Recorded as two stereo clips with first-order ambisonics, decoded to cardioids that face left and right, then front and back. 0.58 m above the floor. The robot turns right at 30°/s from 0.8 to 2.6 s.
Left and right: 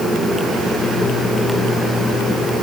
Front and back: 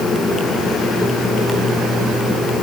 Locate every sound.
Only background noise.